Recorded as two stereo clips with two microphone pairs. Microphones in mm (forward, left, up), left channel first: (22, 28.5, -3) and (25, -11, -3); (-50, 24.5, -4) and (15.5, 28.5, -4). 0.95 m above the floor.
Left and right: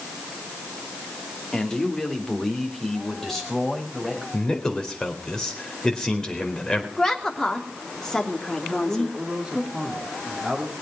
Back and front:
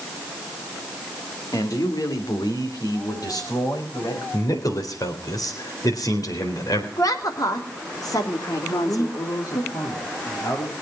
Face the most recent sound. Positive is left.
turn(degrees=-160)